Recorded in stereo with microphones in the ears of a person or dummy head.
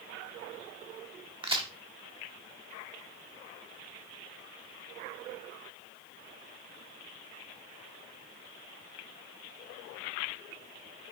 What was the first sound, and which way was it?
A crack, 25° right (ahead or behind).